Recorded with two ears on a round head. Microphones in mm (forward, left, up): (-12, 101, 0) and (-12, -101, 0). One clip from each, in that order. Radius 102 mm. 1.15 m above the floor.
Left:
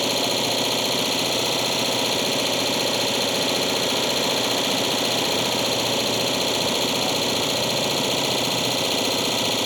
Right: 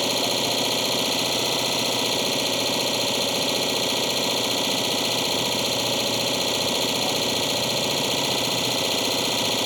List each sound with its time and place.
0.0 s an engine running: 5° right (ahead or behind)